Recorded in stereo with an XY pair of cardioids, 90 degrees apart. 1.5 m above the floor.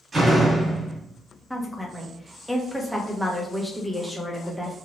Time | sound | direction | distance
0.1 | a door slam | 40° right | 1.4 m
1.5 | a woman speaking | straight ahead | 0.8 m